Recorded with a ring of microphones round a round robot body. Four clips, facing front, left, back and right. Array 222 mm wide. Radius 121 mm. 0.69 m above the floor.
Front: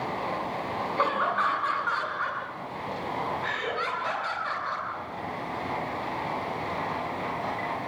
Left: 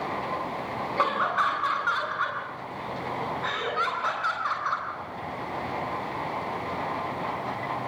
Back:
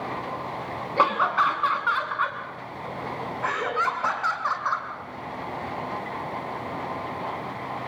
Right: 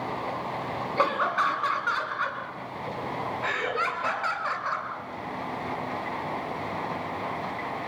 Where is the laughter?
175° right, 8 m; by 4.9 s 155° right, 8 m.